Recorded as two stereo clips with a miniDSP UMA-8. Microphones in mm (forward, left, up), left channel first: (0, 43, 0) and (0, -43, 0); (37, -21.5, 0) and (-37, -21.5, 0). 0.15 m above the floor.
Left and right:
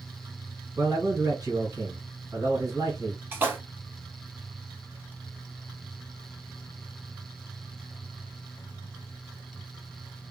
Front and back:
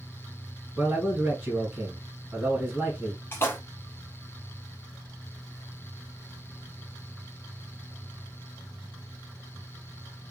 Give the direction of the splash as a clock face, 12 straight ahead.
1 o'clock.